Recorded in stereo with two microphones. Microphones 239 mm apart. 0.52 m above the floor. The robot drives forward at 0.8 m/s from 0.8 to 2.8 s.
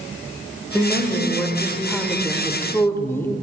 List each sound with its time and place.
0.7 s a woman speaking: 5° left (ahead or behind), 2.5 m; by 3.4 s 10° left (ahead or behind), 0.9 m